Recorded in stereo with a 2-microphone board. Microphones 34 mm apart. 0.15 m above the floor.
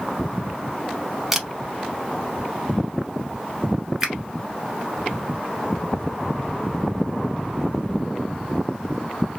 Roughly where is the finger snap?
Centre.